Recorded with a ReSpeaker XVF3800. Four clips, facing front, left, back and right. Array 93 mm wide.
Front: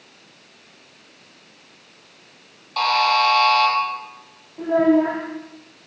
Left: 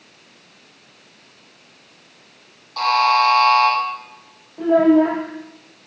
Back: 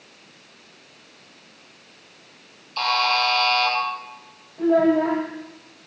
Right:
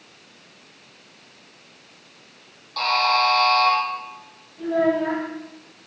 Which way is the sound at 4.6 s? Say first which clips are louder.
Left 7 dB, front 1 dB; 60° left.